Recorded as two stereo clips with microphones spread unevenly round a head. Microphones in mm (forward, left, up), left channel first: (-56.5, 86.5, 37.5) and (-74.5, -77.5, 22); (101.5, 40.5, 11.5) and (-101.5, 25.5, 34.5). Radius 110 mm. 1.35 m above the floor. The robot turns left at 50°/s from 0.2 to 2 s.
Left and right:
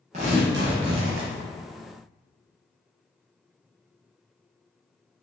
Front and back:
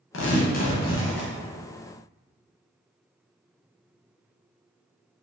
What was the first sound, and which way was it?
Tearing paper, 35° right.